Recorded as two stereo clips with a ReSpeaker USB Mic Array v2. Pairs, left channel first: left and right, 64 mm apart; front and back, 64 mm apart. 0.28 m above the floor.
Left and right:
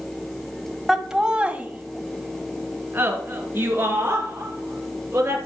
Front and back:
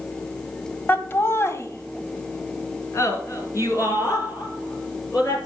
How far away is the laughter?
About 1.1 m.